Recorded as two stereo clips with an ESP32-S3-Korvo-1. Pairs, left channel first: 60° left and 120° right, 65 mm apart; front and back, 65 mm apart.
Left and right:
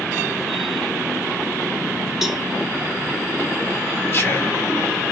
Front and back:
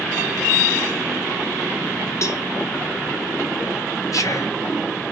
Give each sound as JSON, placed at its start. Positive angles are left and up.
{"t": 2.2, "sound": "a cowbell", "azimuth_deg": -35, "distance_m": 1.0}
{"t": 4.1, "sound": "whispering", "azimuth_deg": 15, "distance_m": 2.0}